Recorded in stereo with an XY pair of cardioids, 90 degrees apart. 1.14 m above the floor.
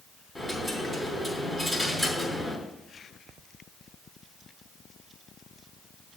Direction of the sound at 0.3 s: 20° left.